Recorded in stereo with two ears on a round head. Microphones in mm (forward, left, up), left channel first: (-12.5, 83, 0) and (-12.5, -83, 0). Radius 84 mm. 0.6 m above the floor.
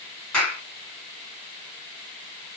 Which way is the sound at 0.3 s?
5° left (ahead or behind).